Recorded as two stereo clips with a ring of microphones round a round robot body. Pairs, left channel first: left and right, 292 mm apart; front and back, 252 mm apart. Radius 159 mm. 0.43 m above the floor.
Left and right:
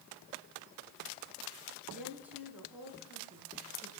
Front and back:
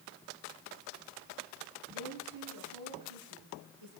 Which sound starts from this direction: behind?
A woman speaking, at 1.9 s.